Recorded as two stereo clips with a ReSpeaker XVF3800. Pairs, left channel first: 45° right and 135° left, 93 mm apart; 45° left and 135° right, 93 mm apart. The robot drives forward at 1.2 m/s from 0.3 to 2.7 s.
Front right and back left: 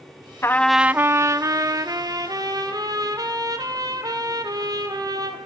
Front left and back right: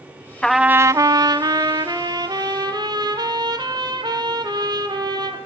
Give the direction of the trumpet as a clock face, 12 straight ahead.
1 o'clock.